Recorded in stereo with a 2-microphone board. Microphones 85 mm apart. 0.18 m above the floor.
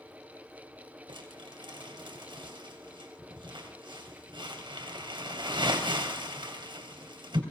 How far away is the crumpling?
About 3 m.